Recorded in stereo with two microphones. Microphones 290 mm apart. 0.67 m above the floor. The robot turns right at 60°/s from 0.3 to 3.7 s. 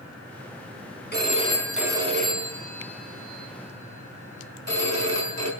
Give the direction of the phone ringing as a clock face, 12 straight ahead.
7 o'clock.